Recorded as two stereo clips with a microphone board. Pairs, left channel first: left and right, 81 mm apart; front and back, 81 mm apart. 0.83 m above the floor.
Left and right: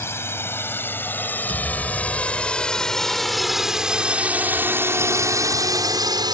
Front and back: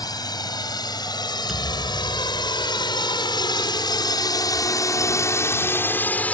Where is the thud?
95° right.